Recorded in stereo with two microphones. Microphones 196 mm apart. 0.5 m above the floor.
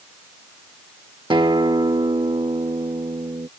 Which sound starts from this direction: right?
A guitar, at 1.3 s.